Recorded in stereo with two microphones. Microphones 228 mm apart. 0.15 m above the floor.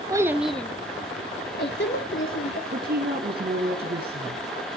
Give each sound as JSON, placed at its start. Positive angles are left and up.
{"t": 0.1, "sound": "a child speaking", "side_deg": -15, "distance_m": 0.8}
{"t": 2.7, "sound": "a woman speaking", "side_deg": -45, "distance_m": 1.7}